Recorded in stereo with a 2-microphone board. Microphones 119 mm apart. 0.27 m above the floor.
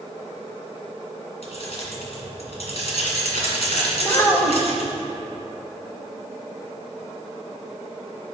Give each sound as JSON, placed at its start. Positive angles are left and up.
{"t": 1.4, "sound": "keys jangling", "side_deg": 65, "distance_m": 2.0}
{"t": 4.0, "sound": "a child speaking", "side_deg": 20, "distance_m": 1.2}